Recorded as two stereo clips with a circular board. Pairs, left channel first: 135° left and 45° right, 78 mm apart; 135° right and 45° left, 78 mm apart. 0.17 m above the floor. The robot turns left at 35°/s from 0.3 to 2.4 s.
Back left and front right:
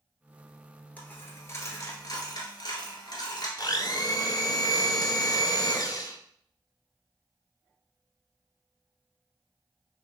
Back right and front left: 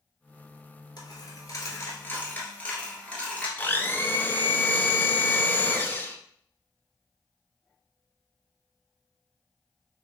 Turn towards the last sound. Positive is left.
turn(degrees=160)